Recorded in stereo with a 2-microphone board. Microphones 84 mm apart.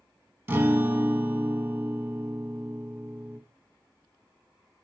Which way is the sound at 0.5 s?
30° right (ahead or behind).